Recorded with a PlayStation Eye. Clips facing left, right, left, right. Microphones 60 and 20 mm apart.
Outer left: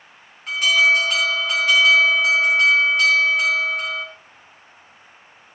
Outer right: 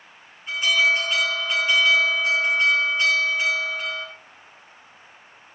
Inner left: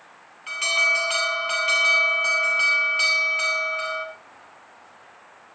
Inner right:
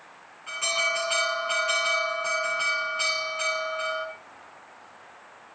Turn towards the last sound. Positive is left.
turn(degrees=70)  # may be behind; listen again after turning